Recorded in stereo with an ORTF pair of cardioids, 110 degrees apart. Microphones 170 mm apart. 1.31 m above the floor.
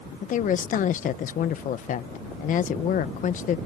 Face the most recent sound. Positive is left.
turn(degrees=55)